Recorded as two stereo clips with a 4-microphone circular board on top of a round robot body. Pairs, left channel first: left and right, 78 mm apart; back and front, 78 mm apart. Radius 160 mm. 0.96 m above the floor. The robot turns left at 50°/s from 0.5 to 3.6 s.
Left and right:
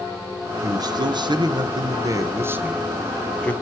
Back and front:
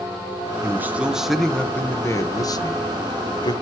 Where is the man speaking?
55° right, 1.3 m; by 3.5 s 160° left, 1.3 m.